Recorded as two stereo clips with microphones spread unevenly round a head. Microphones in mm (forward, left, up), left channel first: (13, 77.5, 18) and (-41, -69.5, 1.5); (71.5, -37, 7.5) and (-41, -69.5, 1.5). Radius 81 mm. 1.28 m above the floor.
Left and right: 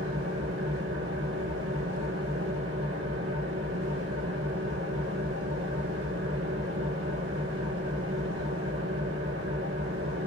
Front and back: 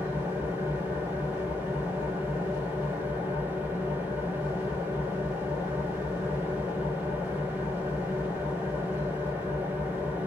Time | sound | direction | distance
0.0 | an engine running | 90° right | 2.5 m